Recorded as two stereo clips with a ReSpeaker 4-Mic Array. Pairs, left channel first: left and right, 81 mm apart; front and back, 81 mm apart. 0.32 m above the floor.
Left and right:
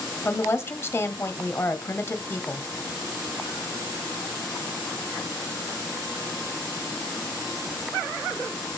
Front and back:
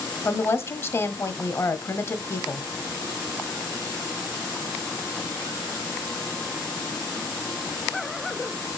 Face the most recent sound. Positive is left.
turn(degrees=40)